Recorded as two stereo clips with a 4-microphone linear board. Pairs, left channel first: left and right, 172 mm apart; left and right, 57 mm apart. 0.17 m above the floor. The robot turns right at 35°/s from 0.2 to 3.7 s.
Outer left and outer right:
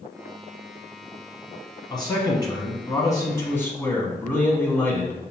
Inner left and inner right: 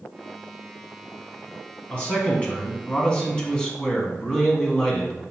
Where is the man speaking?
25° left (ahead or behind), 1.1 m; by 5.2 s 15° left (ahead or behind), 1.1 m.